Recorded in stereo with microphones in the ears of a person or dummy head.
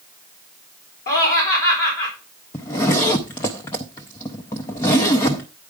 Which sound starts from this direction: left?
Laughter, at 1.1 s.